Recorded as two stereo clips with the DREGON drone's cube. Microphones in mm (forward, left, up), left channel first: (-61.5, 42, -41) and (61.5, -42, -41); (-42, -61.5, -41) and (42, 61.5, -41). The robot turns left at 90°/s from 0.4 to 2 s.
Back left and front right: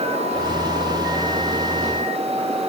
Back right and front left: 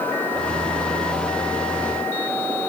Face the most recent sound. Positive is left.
No sound to turn to.